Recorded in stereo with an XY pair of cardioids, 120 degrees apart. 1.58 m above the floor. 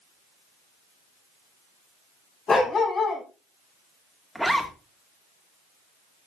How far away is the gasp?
I don't hear a gasp.